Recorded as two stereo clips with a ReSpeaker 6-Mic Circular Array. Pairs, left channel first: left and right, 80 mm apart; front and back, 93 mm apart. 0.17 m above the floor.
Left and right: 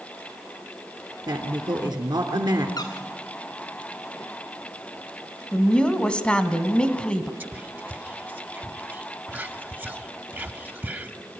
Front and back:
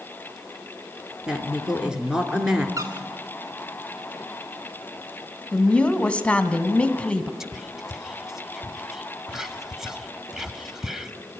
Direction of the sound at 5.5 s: 45° left.